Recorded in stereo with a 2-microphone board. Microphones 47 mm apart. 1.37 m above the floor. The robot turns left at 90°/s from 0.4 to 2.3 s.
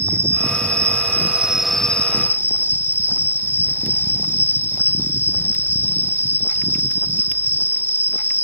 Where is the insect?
65° right; by 8.4 s 125° left.